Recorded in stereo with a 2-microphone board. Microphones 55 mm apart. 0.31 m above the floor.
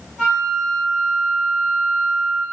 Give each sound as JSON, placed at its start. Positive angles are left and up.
{"t": 0.2, "sound": "a flute", "side_deg": -5, "distance_m": 3.5}